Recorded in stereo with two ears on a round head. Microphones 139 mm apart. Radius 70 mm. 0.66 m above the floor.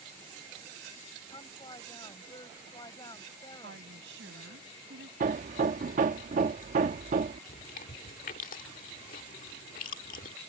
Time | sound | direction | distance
1.3 | a woman speaking | 25° left (ahead or behind) | ?
3.6 | a woman speaking | 80° right | ?
5.2 | hammering | 50° right (ahead or behind) | ?
7.5 | chewing | 50° left (ahead or behind) | ?